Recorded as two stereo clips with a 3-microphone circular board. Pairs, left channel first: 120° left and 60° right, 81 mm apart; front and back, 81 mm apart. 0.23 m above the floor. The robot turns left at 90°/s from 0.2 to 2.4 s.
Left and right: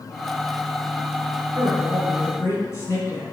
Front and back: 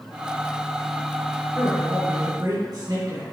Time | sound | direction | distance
1.6 | a man speaking | 115° right | 2.5 m